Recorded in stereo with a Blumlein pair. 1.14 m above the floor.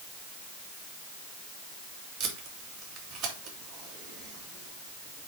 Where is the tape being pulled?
30° right, 2 m.